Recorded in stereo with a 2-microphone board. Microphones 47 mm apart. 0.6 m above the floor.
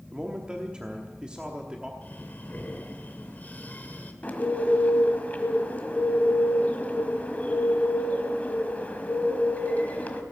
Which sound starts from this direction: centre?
A man speaking, at 0.1 s.